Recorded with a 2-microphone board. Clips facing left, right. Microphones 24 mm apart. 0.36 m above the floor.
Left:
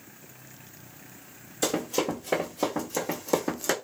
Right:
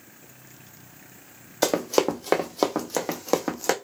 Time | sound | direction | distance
1.6 | running footsteps | 65° right (ahead or behind) | 1.0 m